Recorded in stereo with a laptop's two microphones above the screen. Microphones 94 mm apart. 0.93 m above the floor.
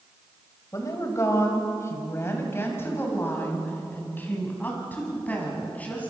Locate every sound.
0.7 s a woman speaking: 35° left (ahead or behind), 5.5 m; by 6.1 s 15° left (ahead or behind), 9 m